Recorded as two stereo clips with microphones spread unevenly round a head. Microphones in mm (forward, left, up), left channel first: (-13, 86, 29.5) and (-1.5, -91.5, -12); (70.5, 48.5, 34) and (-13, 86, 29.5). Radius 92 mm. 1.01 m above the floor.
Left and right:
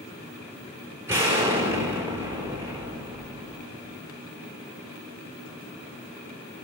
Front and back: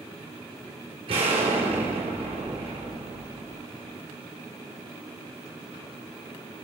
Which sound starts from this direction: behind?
An explosion, at 1.1 s.